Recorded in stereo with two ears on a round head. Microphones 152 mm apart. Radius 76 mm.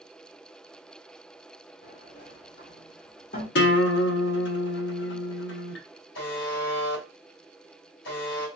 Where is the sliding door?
50° left (ahead or behind), 1.5 m.